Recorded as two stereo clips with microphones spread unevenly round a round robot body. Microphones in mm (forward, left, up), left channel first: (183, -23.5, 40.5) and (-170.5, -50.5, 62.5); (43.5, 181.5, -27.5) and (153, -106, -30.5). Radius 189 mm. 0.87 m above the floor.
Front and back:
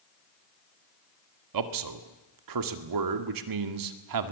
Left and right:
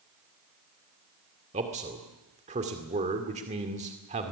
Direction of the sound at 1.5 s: 140° right.